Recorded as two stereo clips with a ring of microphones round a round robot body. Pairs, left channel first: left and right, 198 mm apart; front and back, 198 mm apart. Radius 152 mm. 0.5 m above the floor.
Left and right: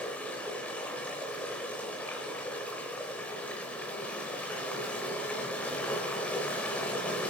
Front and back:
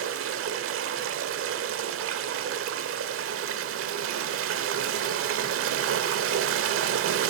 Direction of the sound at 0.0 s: 175° left.